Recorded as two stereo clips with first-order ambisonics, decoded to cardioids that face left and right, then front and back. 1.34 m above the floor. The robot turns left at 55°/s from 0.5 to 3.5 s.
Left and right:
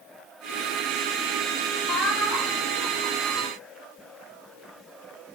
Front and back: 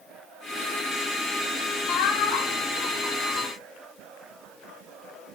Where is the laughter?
25° left, 3 m; by 3.5 s 65° right, 3 m.